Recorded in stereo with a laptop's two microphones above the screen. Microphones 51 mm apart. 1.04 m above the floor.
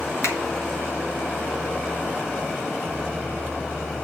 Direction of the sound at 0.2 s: 75° left (ahead or behind).